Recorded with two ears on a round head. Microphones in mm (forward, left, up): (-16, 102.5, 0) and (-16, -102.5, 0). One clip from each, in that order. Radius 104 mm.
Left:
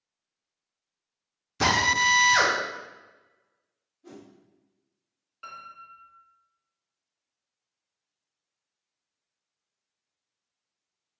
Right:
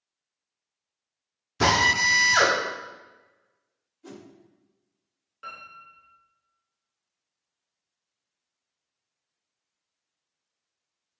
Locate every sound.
1.6 s a drill: 10° left (ahead or behind), 0.8 m
4.0 s a whoosh: 40° right (ahead or behind), 0.7 m
5.4 s a piano: 5° left (ahead or behind), 1.3 m